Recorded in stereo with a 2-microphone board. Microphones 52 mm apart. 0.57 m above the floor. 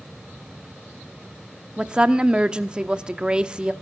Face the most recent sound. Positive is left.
turn(degrees=-15)  # may be behind; listen again after turning